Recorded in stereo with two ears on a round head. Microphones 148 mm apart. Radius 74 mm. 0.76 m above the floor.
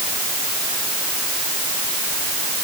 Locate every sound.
Only background noise.